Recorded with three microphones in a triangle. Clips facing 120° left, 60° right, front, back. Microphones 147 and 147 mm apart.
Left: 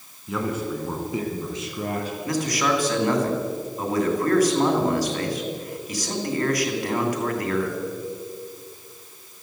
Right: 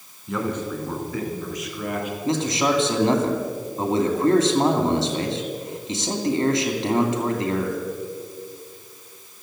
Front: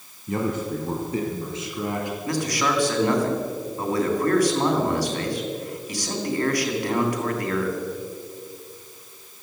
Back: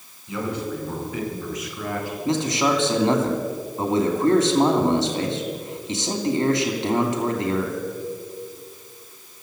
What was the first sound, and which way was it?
A man speaking, 30° left.